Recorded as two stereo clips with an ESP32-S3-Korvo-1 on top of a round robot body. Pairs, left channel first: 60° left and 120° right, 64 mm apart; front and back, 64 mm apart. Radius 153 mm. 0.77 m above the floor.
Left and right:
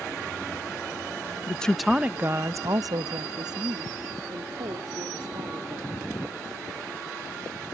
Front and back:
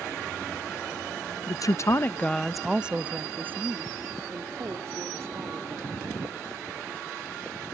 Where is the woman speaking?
10° right; by 6.1 s 135° right.